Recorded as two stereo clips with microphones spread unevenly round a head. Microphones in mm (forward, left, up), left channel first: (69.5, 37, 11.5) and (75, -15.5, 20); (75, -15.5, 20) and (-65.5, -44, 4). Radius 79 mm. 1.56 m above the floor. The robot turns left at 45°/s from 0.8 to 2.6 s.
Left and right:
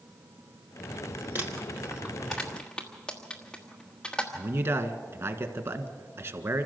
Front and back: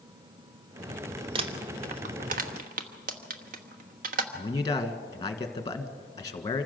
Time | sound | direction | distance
1.4 | crumpling | 120° right | 1.1 m
4.3 | a man speaking | 55° right | 1.6 m